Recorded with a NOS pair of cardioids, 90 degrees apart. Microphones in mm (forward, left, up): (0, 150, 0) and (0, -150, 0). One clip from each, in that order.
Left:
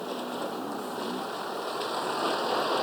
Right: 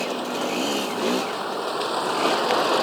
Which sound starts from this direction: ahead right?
A vehicle, at 0.0 s.